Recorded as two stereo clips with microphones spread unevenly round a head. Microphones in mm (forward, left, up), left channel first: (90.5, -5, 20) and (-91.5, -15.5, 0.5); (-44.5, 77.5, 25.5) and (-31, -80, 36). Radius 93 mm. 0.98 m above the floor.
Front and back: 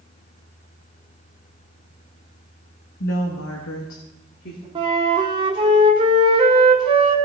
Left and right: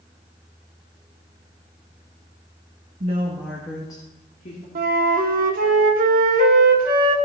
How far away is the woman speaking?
About 1.2 m.